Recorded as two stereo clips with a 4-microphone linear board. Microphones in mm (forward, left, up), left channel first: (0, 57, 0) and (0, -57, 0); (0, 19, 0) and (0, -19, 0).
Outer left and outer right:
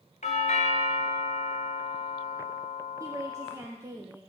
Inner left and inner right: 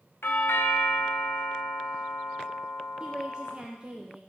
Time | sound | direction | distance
0.2 | a doorbell | 80° left | 0.6 m
3.0 | a woman speaking | 25° right (ahead or behind) | 0.6 m